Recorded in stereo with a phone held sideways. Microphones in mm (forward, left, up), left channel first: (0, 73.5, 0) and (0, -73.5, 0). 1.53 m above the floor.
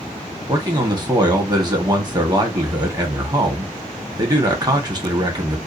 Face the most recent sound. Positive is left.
turn(degrees=-30)  # may be behind; listen again after turning